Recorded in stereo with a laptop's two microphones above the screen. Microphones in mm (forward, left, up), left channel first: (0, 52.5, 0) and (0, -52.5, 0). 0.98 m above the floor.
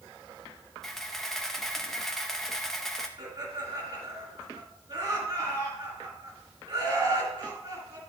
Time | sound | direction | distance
0.8 | a camera shutter | 5° left (ahead or behind) | 0.8 m
3.2 | laughter | 35° right (ahead or behind) | 3 m